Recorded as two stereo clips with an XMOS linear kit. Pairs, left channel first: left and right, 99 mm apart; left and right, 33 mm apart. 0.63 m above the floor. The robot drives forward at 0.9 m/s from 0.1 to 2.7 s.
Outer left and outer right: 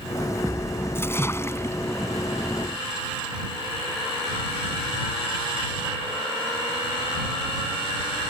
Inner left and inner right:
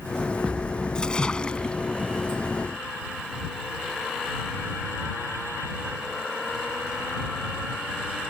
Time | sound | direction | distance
0.9 | a splash | 25° left (ahead or behind) | ?